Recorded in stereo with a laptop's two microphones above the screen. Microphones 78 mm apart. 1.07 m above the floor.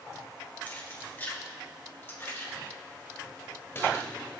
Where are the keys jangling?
20° left (ahead or behind), 2.5 m; by 4.1 s 30° left (ahead or behind), 4 m.